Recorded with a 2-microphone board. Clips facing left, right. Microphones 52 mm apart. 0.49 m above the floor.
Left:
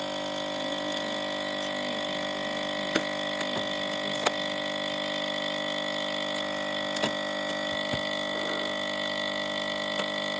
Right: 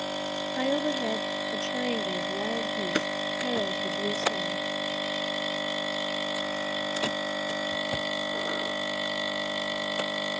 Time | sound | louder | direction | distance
0.5 | a woman speaking | right 4 dB | 60° right (ahead or behind) | ?